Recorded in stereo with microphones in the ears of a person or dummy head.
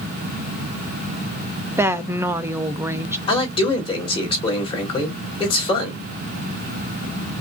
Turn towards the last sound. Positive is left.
turn(degrees=25)  # may be behind; listen again after turning